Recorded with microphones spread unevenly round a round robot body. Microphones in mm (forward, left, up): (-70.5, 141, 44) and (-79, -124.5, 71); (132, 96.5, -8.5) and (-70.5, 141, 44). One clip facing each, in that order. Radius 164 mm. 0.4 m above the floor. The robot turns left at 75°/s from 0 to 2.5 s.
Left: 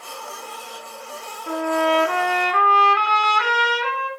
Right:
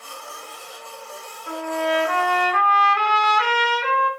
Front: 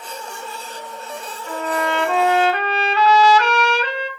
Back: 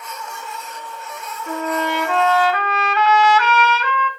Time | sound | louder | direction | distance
1.5 | a trumpet | left 4 dB, back 1 dB | 135° left | 0.6 m